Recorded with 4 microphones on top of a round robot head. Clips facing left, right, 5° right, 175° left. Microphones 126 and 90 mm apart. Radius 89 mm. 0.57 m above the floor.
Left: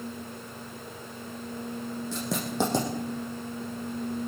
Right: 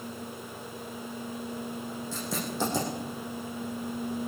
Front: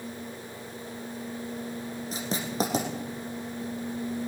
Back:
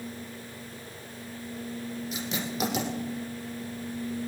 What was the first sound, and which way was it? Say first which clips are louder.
Writing: left 5 dB, front 5 dB; 45° left.